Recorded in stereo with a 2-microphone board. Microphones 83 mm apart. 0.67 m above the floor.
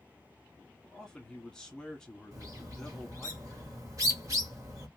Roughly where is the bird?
Right.